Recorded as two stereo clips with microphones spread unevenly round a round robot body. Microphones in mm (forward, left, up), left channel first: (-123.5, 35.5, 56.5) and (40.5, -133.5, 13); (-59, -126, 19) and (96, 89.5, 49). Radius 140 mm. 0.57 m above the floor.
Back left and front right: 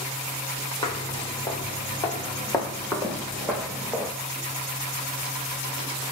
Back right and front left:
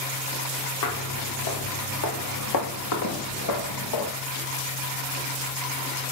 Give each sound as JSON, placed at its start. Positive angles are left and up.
{"t": 0.8, "sound": "footsteps", "azimuth_deg": -160, "distance_m": 5.0}